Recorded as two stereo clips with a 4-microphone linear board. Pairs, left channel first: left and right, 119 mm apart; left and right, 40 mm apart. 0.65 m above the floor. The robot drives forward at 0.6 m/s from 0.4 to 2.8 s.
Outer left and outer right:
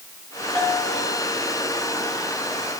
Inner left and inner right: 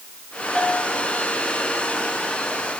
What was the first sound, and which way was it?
A bell, 15° left (ahead or behind).